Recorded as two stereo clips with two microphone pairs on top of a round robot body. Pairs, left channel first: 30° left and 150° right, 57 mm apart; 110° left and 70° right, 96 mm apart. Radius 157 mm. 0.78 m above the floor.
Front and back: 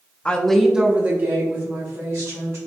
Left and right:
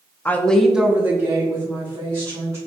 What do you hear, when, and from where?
0.2 s a woman speaking: 55° left, 0.9 m; by 2.6 s 120° right, 2 m